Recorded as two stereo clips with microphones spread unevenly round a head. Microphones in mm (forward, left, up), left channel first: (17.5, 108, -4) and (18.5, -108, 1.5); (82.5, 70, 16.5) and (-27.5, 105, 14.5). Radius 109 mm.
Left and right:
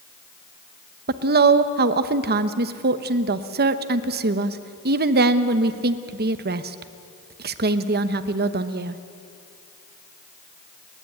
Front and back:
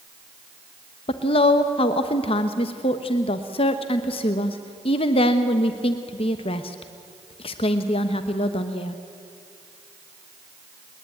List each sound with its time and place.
1.1 s a woman speaking: 55° right, 0.9 m